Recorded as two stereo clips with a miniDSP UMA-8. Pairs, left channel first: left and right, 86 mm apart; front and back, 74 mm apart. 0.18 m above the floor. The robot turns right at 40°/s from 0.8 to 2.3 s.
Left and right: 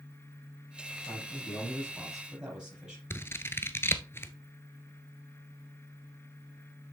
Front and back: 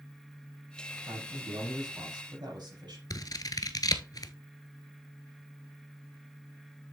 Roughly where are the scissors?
Ahead left.